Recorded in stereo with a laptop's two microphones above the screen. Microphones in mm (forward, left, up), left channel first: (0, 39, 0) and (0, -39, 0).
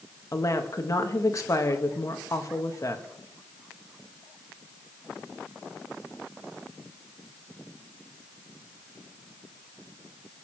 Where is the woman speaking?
45° left (ahead or behind), 1.2 m.